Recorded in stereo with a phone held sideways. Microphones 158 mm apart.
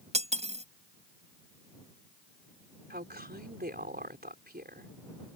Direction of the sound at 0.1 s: 45° right (ahead or behind).